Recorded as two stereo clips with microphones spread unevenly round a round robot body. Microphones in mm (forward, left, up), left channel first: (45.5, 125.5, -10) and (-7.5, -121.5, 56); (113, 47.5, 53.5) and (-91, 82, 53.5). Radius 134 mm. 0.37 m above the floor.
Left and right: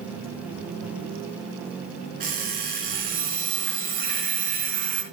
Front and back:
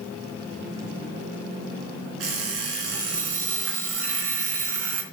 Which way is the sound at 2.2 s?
165° right.